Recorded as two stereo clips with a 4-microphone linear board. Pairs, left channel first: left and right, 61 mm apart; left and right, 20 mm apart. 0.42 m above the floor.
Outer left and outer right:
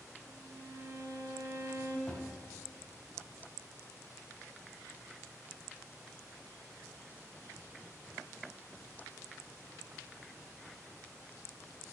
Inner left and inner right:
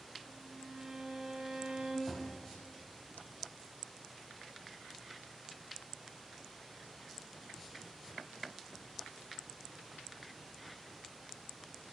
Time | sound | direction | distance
0.3 | a violin | 55° right (ahead or behind) | 2.5 m
2.1 | a thud | 25° left (ahead or behind) | 7 m